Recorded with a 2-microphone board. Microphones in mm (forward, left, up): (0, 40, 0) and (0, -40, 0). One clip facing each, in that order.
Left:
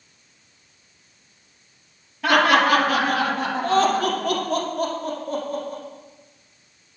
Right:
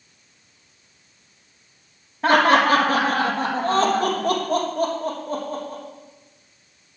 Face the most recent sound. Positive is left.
turn(degrees=-35)  # may be behind; listen again after turning